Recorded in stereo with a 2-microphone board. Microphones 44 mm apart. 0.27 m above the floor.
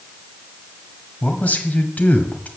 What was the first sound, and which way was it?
A man speaking, 40° left (ahead or behind).